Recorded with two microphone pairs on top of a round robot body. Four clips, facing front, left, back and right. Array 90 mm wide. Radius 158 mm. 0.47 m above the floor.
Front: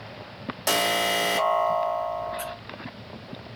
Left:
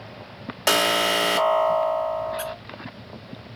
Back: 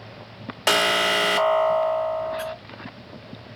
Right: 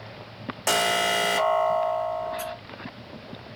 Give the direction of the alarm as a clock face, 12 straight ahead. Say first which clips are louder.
Left 2 dB, back 4 dB; 7 o'clock.